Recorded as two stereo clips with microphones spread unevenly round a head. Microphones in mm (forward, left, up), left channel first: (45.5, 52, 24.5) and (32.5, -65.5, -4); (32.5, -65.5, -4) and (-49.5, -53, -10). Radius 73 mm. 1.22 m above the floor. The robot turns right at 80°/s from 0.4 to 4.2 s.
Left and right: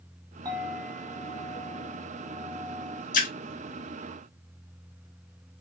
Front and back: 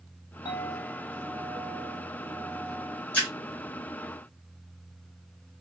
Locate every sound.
0.5 s a clink: 30° right, 1.1 m; by 3.0 s 175° left, 1.1 m
3.1 s a splash: 75° left, 1.1 m; by 3.3 s 85° left, 1.1 m